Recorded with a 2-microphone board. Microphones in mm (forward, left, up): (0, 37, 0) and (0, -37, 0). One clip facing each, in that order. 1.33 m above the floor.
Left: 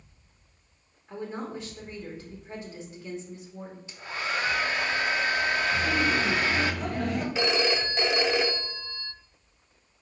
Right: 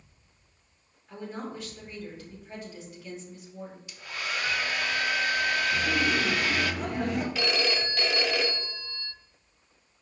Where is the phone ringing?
20° left (ahead or behind), 0.5 m.